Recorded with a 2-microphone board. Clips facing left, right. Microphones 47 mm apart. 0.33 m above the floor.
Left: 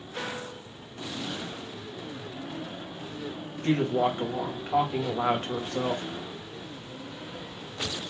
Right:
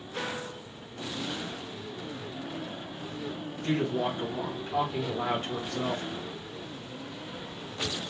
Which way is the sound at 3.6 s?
50° left (ahead or behind).